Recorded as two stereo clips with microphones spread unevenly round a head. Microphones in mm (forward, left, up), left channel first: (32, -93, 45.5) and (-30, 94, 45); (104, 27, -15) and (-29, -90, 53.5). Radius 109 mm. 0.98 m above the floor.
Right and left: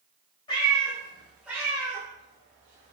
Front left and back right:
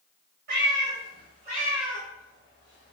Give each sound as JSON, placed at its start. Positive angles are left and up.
{"t": 0.5, "sound": "a cat meowing", "azimuth_deg": -140, "distance_m": 1.6}